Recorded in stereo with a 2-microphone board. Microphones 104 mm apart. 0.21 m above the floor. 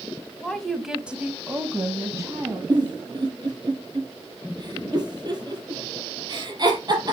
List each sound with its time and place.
0.4 s a woman speaking: 5° left (ahead or behind), 1.6 m; by 2.6 s 30° right (ahead or behind), 2.5 m
2.7 s a giggle: 40° right (ahead or behind), 3 m